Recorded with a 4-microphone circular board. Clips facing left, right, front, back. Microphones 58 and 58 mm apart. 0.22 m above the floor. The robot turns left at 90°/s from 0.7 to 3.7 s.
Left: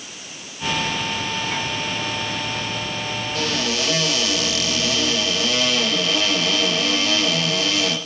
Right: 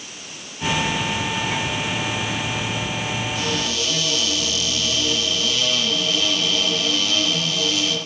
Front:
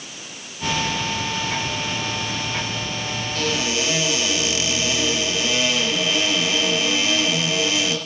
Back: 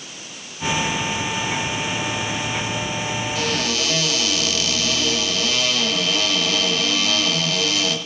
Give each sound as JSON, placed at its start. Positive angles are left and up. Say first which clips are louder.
{"t": 3.4, "sound": "a cupboard door", "louder": "left 1 dB, front 2 dB", "azimuth_deg": 100, "distance_m": 4.5}